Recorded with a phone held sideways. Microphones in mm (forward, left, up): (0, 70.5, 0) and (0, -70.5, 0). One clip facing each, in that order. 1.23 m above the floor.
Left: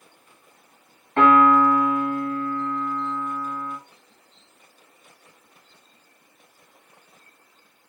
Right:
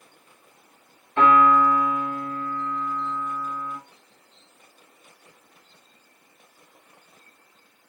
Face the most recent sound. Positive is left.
turn(degrees=65)  # may be behind; listen again after turning